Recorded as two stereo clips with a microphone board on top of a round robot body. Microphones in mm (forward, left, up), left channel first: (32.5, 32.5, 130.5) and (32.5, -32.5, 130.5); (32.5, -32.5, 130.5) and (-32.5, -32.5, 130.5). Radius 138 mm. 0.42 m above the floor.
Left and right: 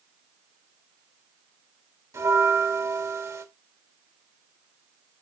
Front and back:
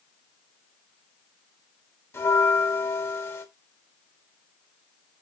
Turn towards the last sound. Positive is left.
turn(degrees=-55)